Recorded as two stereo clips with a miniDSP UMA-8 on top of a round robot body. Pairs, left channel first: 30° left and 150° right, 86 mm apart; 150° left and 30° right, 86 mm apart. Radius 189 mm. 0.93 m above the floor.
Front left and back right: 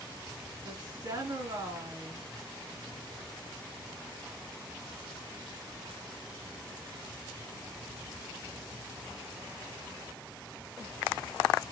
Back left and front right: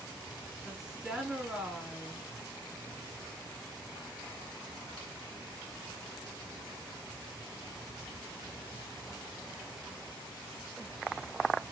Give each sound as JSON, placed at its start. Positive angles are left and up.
{"t": 0.6, "sound": "a woman speaking", "azimuth_deg": -115, "distance_m": 2.0}